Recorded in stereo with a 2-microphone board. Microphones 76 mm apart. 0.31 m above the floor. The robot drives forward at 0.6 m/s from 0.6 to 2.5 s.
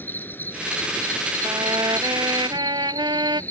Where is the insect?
25° left (ahead or behind); by 3.5 s 20° left (ahead or behind).